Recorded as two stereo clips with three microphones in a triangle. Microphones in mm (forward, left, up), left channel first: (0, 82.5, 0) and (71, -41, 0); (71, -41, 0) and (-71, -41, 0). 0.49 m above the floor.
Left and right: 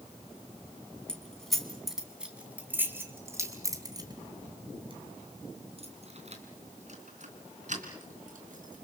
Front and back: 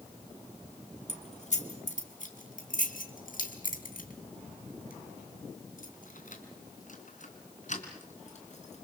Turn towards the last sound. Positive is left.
turn(degrees=-35)